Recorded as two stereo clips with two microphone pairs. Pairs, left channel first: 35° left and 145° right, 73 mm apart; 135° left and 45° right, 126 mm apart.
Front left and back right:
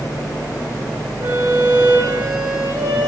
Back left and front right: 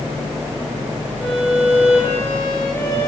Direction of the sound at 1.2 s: 155° right.